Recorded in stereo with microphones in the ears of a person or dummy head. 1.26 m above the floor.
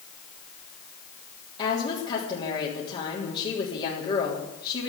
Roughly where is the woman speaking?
Left.